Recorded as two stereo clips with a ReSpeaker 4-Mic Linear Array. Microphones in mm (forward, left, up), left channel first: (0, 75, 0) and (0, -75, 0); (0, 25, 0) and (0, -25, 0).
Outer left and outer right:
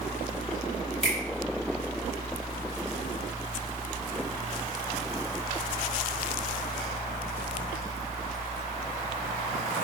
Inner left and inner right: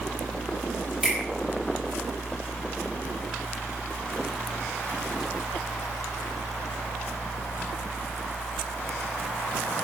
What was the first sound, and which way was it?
A finger snap, 5° left (ahead or behind).